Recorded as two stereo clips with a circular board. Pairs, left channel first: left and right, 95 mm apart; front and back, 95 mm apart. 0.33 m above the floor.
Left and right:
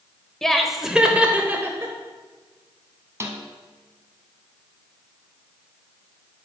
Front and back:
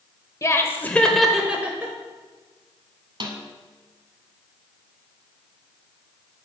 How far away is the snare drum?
About 1.2 m.